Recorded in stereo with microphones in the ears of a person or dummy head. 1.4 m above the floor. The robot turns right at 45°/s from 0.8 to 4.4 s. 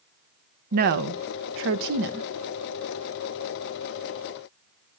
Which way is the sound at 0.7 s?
50° right (ahead or behind).